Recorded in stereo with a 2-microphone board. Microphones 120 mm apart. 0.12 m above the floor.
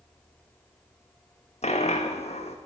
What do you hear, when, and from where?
1.6 s a dropped coin: 65° left (ahead or behind), 0.5 m